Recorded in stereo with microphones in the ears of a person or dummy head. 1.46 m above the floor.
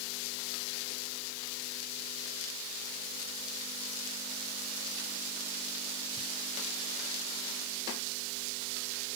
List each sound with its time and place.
Only background noise.